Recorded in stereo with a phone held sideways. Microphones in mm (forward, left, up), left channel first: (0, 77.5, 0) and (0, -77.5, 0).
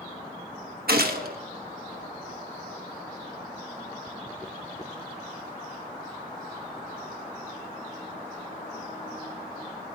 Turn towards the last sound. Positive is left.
turn(degrees=-80)